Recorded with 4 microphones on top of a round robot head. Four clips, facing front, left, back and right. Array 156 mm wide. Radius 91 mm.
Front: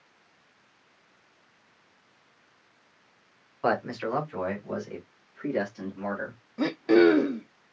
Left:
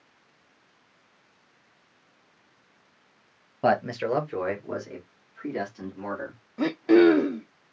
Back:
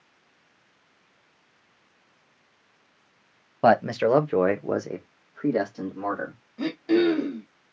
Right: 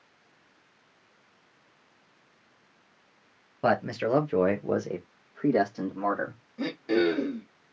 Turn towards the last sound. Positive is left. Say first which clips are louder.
# left 8 dB, front 2 dB
turn(degrees=55)